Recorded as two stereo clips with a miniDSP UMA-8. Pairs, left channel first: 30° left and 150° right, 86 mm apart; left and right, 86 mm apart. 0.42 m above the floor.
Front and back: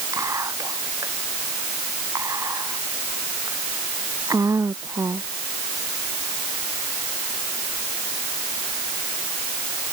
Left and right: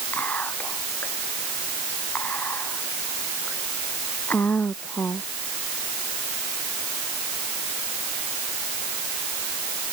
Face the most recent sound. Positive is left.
turn(degrees=160)